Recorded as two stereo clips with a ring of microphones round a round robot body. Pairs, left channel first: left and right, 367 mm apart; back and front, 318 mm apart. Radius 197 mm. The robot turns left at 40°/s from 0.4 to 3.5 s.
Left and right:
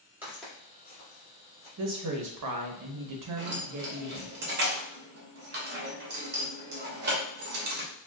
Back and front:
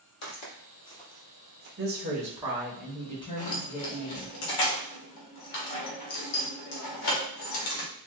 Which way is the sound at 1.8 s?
50° right.